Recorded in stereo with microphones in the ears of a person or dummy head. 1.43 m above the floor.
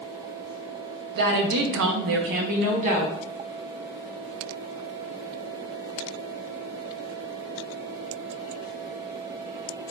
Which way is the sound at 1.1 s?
60° right (ahead or behind).